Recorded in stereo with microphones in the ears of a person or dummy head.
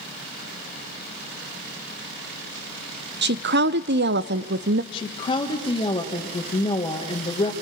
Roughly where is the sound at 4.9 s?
Left.